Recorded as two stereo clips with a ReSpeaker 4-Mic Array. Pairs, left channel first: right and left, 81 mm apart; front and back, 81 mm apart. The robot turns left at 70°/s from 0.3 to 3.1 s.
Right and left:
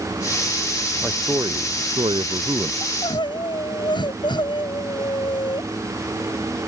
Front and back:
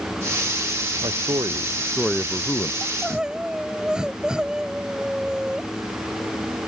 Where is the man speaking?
165° left; by 2.7 s 50° left.